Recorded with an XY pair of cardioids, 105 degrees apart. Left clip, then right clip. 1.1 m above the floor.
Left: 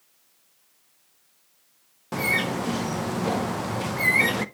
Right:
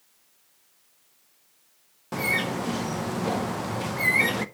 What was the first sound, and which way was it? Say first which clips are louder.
A bird: left 2 dB; 10° left.